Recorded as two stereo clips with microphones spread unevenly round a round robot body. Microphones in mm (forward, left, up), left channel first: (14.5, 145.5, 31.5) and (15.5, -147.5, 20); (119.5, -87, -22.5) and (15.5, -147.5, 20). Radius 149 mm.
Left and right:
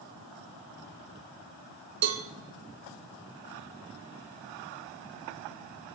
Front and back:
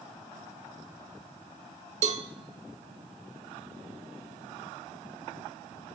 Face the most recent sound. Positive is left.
turn(degrees=-130)